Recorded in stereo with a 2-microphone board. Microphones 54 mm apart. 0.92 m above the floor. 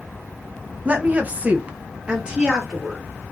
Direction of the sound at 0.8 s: 25° right (ahead or behind).